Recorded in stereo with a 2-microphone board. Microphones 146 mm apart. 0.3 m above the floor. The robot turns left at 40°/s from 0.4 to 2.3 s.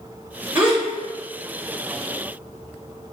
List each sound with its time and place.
0.6 s a gasp: 15° right (ahead or behind), 1.5 m; by 0.8 s 10° right (ahead or behind), 1.5 m